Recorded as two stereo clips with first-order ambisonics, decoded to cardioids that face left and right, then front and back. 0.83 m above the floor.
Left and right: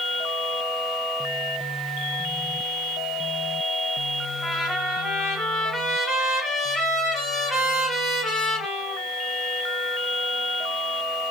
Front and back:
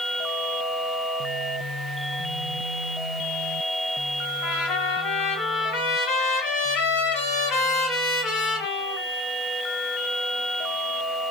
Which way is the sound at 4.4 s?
10° left.